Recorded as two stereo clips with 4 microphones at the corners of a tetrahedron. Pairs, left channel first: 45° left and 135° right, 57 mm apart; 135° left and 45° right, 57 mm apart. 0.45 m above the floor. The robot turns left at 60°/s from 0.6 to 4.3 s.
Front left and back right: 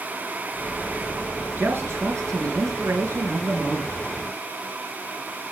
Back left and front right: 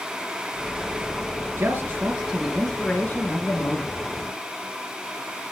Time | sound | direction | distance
1.6 | a man speaking | 80° right | 5.5 m